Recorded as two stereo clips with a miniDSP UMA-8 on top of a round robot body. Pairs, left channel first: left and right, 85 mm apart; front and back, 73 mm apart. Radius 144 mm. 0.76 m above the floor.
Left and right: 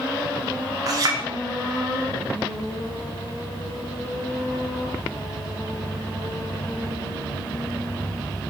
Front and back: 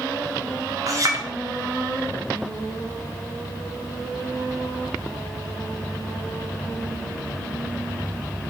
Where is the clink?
135° right, 0.9 m.